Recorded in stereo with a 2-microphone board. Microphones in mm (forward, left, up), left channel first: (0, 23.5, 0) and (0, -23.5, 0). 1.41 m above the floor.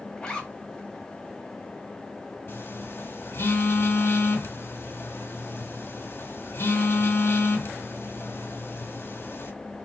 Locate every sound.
0.2 s a zipper: 15° left (ahead or behind), 1.2 m
2.5 s a phone buzzing: 50° left (ahead or behind), 1.1 m